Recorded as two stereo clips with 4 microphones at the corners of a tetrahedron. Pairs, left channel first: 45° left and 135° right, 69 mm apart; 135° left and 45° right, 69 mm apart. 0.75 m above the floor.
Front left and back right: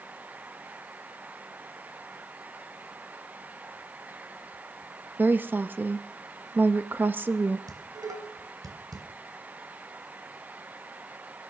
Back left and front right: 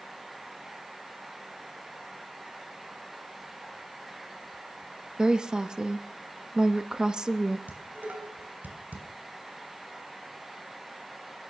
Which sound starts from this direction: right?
Dishes clattering, at 7.7 s.